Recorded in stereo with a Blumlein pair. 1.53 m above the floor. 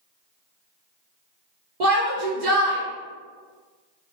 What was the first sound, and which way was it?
A shout, 45° right.